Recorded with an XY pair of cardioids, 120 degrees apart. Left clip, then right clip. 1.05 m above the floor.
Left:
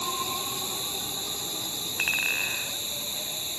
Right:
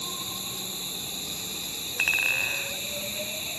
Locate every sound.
0.0 s an insect: 10° left
2.0 s a clink: 20° right